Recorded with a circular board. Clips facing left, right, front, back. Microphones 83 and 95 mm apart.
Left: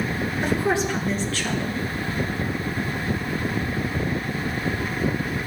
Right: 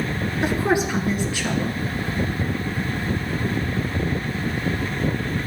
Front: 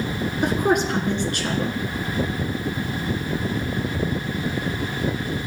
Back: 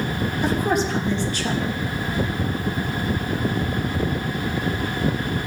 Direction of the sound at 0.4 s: 15° right.